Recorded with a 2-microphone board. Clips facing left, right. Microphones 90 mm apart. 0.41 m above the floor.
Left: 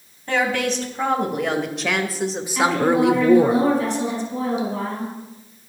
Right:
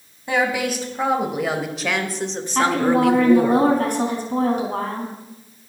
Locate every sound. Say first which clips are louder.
0.3 s a woman speaking: even; 10° right (ahead or behind), 3 m; by 3.5 s 30° left (ahead or behind), 1.1 m
2.5 s a woman speaking: even; 50° right (ahead or behind), 4 m